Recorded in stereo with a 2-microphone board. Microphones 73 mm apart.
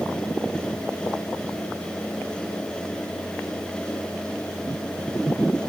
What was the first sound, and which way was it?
Only background noise.